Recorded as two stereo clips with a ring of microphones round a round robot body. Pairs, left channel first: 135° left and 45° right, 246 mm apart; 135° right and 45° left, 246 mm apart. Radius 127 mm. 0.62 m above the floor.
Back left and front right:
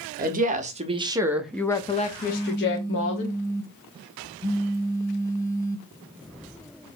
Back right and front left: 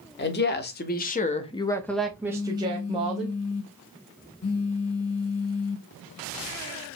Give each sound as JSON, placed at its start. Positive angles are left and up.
{"t": 0.2, "sound": "a woman speaking", "azimuth_deg": -95, "distance_m": 1.0}
{"t": 2.3, "sound": "a phone buzzing", "azimuth_deg": -150, "distance_m": 0.8}